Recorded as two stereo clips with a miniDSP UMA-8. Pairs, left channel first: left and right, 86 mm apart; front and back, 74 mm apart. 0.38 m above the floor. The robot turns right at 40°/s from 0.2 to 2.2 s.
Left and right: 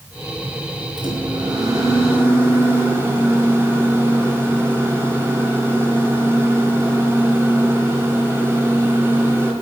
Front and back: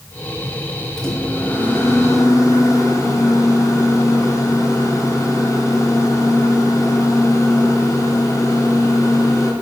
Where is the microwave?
85° right, 1.9 m; by 9.5 s 35° right, 1.9 m.